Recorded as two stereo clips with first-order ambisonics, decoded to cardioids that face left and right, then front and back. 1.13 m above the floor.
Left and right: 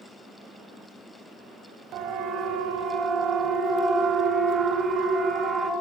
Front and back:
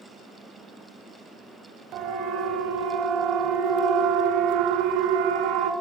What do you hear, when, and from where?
1.9 s a siren: 135° right, 5.5 m; by 5.7 s 165° right, 5 m